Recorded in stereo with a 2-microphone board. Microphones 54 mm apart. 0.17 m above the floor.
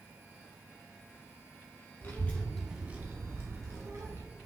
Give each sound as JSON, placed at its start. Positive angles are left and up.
{"t": 2.0, "sound": "a child speaking", "side_deg": 40, "distance_m": 1.0}